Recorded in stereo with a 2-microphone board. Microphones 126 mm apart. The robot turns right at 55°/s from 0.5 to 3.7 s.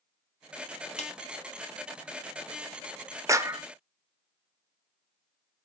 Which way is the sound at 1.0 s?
60° left (ahead or behind).